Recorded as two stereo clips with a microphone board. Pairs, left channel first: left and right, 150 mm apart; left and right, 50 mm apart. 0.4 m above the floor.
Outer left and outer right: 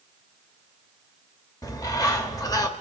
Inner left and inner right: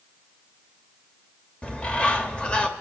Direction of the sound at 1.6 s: 25° left (ahead or behind).